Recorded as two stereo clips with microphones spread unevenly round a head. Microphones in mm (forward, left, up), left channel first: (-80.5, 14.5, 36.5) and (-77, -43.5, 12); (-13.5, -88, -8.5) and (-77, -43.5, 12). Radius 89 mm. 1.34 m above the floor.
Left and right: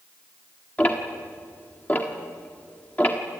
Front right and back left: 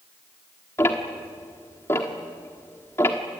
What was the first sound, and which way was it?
Ticking, 40° left.